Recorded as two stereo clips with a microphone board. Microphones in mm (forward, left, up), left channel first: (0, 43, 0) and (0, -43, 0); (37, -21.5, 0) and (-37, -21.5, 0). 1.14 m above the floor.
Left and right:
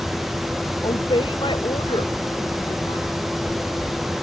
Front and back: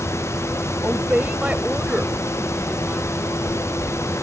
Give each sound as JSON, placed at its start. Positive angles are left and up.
{"t": 0.8, "sound": "a woman speaking", "azimuth_deg": 110}